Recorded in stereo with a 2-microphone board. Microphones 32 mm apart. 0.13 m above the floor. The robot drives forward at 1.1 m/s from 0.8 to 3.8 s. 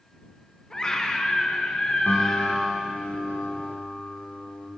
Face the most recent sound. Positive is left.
turn(degrees=55)  # may be behind; listen again after turning